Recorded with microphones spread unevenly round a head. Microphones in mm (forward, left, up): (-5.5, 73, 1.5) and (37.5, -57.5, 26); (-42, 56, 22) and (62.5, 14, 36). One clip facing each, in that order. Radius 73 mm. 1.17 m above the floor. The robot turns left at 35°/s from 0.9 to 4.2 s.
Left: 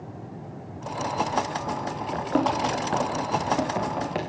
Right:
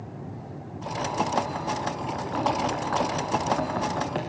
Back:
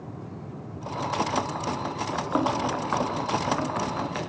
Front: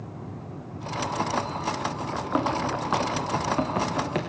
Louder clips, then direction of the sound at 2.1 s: Left 4 dB, back 1 dB; 75° left.